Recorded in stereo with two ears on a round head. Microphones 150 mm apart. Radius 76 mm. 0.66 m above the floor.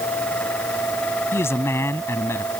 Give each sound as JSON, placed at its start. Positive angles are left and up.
{"t": 1.3, "sound": "a man speaking", "side_deg": 15}